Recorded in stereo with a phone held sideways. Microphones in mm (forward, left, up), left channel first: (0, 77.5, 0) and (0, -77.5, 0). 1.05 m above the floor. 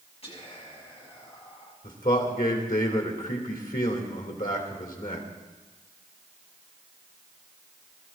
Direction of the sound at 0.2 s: 40° left (ahead or behind).